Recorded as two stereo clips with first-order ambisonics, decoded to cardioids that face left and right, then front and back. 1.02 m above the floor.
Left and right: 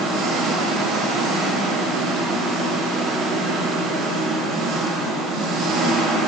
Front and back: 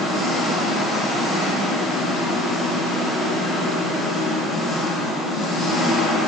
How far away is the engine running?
About 1.5 m.